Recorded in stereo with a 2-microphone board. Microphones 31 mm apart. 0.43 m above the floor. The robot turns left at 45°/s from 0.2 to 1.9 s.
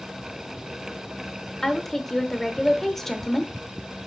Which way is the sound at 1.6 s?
15° left (ahead or behind).